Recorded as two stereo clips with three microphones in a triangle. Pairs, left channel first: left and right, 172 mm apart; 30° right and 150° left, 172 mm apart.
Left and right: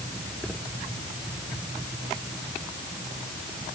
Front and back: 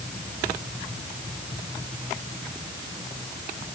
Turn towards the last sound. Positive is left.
No sound to turn to.